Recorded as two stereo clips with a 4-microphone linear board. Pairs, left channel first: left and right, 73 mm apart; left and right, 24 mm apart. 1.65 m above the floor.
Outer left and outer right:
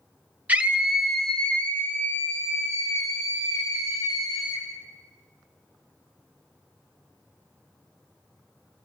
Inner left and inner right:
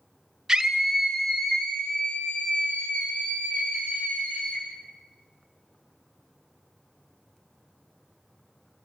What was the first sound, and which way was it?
A scream, 20° right (ahead or behind).